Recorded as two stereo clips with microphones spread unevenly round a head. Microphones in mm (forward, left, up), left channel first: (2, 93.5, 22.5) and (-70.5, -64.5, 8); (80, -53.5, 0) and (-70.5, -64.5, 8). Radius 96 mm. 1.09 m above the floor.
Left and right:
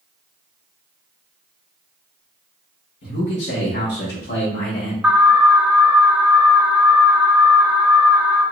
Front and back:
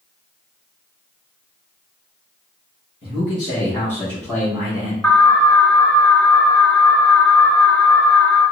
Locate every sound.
3.0 s a man speaking: 55° left, 1.3 m; by 4.9 s 105° left, 1.5 m
5.0 s an alarm: 60° right, 0.9 m